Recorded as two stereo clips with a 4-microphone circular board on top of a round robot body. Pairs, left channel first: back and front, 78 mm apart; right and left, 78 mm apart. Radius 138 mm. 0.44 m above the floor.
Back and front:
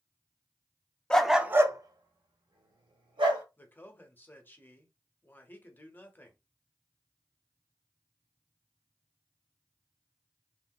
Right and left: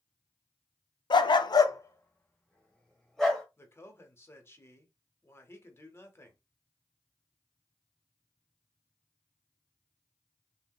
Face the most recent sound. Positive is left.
turn(degrees=-125)